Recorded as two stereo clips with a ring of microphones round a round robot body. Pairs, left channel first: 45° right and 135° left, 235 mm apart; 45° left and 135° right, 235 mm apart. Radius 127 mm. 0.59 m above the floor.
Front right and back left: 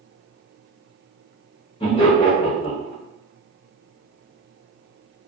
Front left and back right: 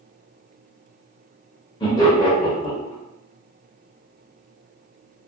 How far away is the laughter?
About 1.0 m.